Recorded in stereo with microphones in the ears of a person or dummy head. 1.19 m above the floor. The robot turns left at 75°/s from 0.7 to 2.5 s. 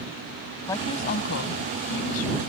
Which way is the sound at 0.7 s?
160° left.